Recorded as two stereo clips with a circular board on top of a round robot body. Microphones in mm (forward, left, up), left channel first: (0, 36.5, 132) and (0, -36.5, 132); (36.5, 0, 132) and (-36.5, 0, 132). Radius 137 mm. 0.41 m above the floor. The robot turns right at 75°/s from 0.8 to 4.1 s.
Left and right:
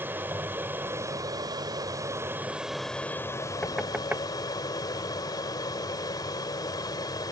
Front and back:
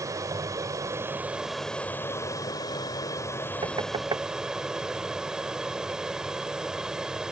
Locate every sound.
0.0 s an aircraft: 150° right; by 7.3 s 100° left
3.6 s knocking: 165° left; by 4.2 s 160° right